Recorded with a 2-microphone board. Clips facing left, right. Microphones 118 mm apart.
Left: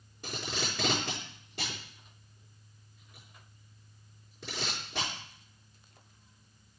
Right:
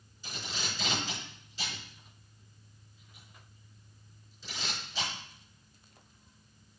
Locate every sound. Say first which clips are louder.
0.2 s tape being pulled: left 4 dB; 65° left (ahead or behind), 5 m